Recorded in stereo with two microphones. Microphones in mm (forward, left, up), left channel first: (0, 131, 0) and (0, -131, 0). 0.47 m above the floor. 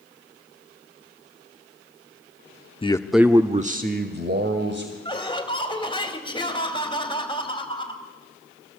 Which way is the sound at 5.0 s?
20° left (ahead or behind).